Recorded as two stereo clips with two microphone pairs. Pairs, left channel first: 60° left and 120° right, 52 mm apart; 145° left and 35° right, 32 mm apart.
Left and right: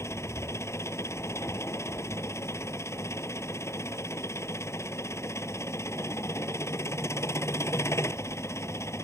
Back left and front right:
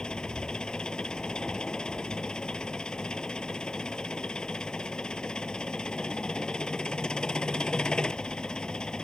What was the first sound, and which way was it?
An engine running, 80° left.